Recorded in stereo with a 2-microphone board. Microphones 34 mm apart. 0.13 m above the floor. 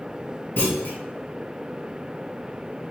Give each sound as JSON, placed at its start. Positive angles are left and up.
{"t": 0.6, "sound": "a clunk", "side_deg": 65, "distance_m": 1.7}